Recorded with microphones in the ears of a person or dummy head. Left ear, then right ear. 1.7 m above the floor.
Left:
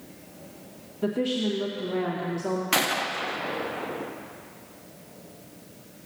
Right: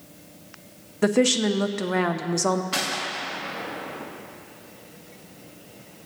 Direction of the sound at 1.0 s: 60° right (ahead or behind).